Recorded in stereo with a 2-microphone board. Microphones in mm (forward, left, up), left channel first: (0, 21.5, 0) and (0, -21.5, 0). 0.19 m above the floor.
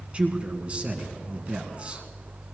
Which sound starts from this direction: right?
A man speaking, at 0.1 s.